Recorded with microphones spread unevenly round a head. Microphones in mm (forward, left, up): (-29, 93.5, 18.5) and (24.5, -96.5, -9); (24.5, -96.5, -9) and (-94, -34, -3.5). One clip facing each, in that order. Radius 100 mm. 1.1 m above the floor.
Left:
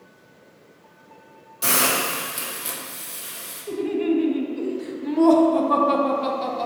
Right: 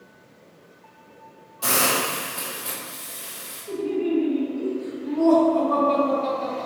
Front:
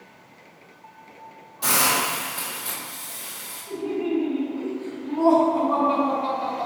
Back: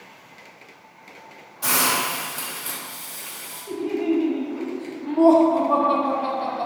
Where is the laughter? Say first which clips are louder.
Left 2 dB, back 3 dB; 95° left, 0.9 m.